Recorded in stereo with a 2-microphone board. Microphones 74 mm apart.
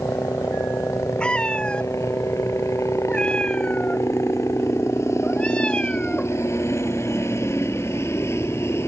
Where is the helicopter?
40° left (ahead or behind); by 8.9 s 35° left (ahead or behind).